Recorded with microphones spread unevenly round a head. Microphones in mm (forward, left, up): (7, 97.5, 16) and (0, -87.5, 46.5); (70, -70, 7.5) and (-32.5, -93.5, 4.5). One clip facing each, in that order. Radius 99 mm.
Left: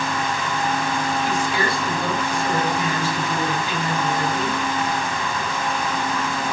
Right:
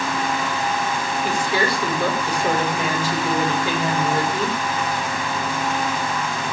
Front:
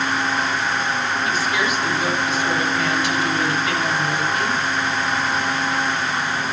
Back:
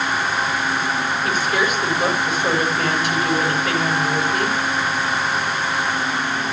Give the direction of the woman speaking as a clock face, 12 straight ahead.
4 o'clock.